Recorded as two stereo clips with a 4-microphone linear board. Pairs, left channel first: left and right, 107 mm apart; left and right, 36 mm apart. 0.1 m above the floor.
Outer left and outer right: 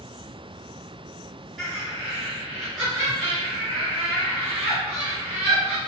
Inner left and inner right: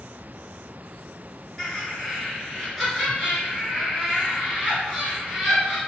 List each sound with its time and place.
1.6 s laughter: centre (ahead or behind), 1.8 m